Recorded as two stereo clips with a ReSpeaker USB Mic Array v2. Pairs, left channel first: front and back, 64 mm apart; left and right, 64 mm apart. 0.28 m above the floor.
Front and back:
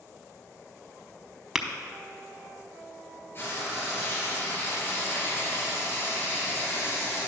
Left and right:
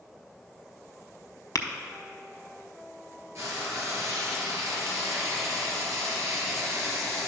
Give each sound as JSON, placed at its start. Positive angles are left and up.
{"t": 1.6, "sound": "tapping", "azimuth_deg": 95, "distance_m": 0.7}
{"t": 3.4, "sound": "frying", "azimuth_deg": -50, "distance_m": 2.0}